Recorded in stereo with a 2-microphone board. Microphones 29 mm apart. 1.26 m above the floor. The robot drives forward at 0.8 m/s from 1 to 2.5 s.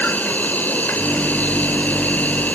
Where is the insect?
80° left; by 2.5 s 70° left (ahead or behind).